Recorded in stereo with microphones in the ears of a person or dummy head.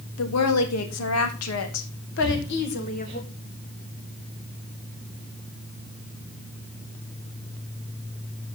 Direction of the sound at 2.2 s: 30° right (ahead or behind).